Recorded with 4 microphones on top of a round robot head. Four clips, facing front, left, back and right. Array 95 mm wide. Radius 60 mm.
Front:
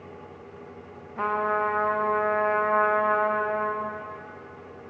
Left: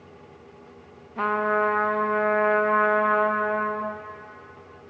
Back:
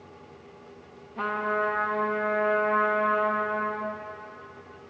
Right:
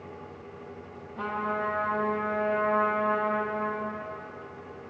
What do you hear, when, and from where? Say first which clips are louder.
1.2 s a trumpet: left 8 dB, front 2 dB; 75° left, 0.6 m